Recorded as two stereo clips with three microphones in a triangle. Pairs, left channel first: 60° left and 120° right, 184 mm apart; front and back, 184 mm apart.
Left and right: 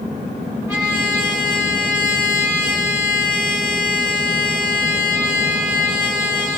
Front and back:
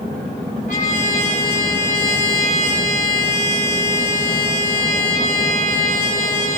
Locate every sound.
0.7 s a trumpet: 40° right, 3.5 m